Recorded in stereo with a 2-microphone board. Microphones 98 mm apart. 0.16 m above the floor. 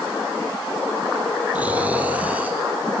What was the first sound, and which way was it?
Snoring, 15° right (ahead or behind).